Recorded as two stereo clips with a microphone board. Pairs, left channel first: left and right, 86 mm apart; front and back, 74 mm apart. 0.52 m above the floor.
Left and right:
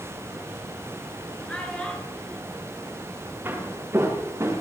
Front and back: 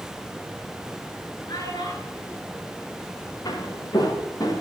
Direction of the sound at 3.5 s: 20° right.